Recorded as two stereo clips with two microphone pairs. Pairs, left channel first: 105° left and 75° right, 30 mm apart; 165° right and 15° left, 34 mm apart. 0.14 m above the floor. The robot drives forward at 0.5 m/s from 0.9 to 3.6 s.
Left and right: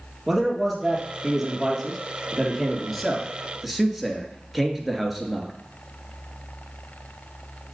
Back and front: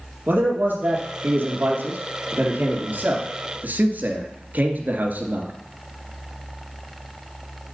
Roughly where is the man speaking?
Ahead.